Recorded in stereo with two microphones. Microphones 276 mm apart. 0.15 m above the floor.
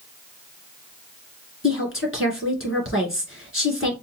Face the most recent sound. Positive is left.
turn(degrees=50)  # may be behind; listen again after turning